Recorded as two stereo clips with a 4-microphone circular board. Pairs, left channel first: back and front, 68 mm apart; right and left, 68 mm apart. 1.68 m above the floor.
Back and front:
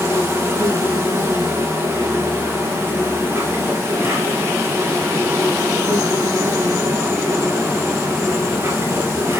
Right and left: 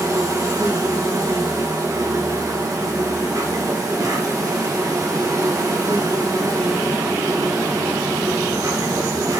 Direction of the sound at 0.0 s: 55° left.